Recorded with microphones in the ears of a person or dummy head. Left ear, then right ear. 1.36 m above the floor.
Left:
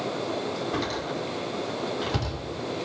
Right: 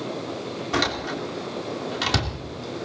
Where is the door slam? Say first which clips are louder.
Right 4 dB; 85° right, 3 m.